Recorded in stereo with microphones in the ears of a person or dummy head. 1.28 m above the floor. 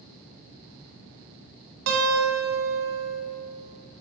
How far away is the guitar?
About 1.6 m.